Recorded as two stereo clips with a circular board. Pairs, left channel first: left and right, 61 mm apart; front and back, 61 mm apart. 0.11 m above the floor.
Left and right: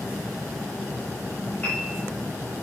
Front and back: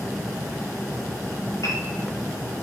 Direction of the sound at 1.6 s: 25° left.